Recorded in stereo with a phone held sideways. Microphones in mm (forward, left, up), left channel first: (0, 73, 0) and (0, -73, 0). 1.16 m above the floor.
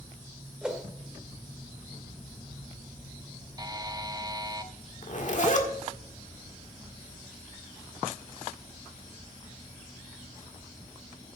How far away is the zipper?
About 1.7 m.